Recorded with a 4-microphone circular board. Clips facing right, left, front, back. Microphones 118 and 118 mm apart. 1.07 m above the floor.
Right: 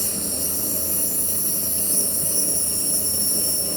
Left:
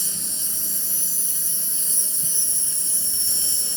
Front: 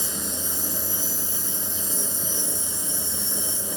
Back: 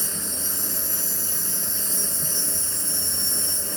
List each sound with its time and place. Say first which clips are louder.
0.0 s an insect: right 11 dB, front 2 dB; 115° right, 6 m